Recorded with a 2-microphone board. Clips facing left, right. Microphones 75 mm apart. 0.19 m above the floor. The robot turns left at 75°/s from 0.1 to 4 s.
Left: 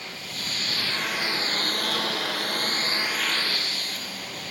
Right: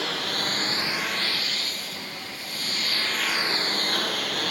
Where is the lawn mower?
80° right; by 4.5 s 70° right (ahead or behind).